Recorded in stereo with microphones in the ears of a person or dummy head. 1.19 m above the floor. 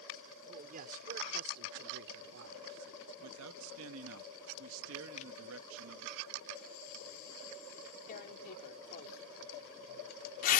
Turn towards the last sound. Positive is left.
turn(degrees=50)  # may be behind; listen again after turning